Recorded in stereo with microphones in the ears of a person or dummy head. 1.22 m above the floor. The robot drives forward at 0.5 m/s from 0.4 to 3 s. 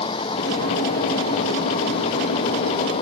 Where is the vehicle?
25° left (ahead or behind); by 3.0 s 30° left (ahead or behind).